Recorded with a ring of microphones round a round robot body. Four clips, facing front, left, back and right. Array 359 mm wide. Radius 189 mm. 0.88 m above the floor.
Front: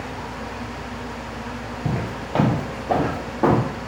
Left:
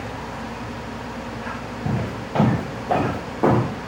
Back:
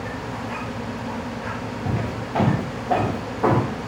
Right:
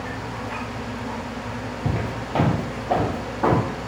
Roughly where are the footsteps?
Ahead right.